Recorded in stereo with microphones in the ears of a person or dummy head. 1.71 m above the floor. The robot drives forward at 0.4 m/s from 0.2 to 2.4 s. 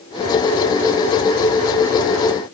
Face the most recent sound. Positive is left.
No sound to turn to.